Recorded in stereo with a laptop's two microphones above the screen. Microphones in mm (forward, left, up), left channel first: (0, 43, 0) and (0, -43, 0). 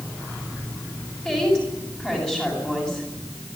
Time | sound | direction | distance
1.2 | a woman speaking | 10° left (ahead or behind) | 9 m